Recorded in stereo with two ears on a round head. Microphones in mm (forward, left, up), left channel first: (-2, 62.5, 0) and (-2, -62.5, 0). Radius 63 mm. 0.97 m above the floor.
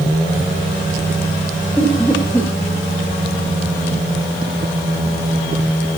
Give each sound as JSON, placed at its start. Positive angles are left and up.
{"t": 1.8, "sound": "laughter", "side_deg": 10, "distance_m": 3.0}